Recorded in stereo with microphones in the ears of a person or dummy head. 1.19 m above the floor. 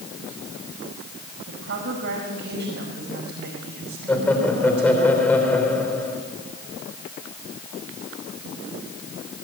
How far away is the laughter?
About 4.5 m.